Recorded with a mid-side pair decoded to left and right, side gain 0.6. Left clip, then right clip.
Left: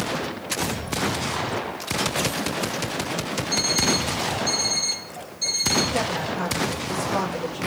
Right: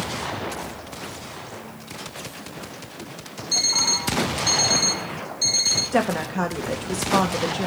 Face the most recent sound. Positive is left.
turn(degrees=-50)